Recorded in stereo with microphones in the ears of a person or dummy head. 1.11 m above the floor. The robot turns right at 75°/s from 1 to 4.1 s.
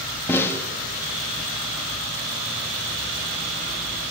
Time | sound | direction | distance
0.3 | a snare drum | 10° left (ahead or behind) | 2.5 m